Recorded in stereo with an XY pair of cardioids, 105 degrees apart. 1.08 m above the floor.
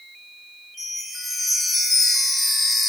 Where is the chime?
15° left, 1.0 m.